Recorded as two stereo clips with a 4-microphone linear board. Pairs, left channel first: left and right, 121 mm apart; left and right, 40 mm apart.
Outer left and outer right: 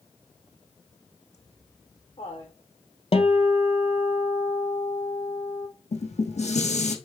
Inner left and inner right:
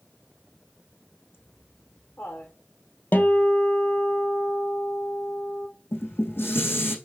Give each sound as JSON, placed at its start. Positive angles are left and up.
{"t": 1.3, "sound": "laughter", "side_deg": 65, "distance_m": 6.0}
{"t": 3.1, "sound": "a guitar", "side_deg": 55, "distance_m": 1.3}
{"t": 5.9, "sound": "dishes clattering", "side_deg": 70, "distance_m": 3.5}